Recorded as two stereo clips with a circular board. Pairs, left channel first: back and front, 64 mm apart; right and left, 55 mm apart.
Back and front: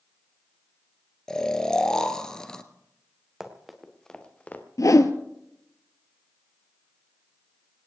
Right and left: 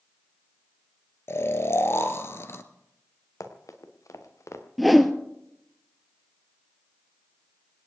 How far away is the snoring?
About 1.0 m.